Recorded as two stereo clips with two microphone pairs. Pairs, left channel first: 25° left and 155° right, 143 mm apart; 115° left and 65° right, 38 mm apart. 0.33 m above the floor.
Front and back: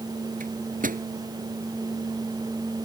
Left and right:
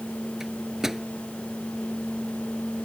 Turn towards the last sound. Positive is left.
turn(degrees=-140)